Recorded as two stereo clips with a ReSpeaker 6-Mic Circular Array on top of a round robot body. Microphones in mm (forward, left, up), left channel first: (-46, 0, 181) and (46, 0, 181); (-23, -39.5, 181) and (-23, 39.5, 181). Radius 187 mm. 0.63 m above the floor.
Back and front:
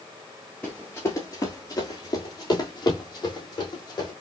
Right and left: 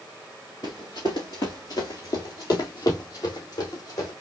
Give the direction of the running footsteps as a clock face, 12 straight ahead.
3 o'clock.